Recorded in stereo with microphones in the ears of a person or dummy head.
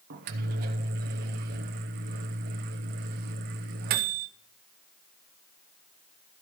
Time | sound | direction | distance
0.1 | a microwave | 60° right (ahead or behind) | 0.9 m